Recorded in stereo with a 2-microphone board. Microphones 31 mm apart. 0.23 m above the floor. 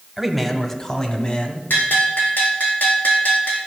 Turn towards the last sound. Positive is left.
turn(degrees=80)